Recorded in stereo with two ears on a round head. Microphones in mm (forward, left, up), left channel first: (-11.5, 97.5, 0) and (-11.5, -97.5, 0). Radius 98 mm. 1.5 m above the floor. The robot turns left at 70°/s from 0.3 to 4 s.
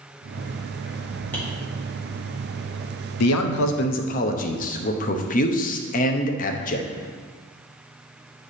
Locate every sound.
1.3 s tapping: 10° left (ahead or behind), 2 m; by 1.5 s centre (ahead or behind), 2 m
3.2 s a man speaking: 95° left, 0.7 m; by 6.9 s 40° left, 0.7 m